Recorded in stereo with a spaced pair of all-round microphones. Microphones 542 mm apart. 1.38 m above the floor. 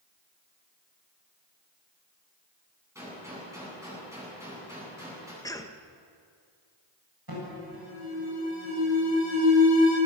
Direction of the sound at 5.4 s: 5° left (ahead or behind).